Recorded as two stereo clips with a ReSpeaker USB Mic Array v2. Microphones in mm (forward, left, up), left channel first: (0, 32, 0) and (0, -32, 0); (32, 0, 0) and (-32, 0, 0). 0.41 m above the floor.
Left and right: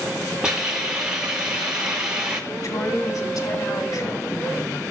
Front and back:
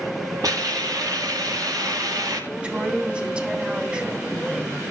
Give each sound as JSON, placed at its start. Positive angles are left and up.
{"t": 0.4, "sound": "a hiss", "azimuth_deg": -165, "distance_m": 8.0}
{"t": 2.5, "sound": "a woman speaking", "azimuth_deg": 110, "distance_m": 4.0}